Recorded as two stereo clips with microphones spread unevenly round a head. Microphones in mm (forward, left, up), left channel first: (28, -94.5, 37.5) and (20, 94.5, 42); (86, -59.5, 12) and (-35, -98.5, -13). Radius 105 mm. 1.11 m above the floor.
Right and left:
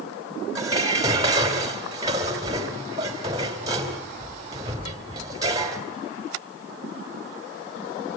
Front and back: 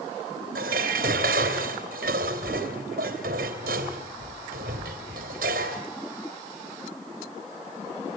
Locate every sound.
0.6 s dishes clattering: 165° left, 3 m